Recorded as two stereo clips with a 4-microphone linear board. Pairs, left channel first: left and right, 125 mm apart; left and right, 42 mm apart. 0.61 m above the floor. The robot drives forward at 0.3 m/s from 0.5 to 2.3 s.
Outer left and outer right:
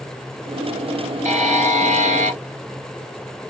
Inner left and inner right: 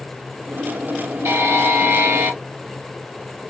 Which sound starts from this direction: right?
A buzzer, at 1.2 s.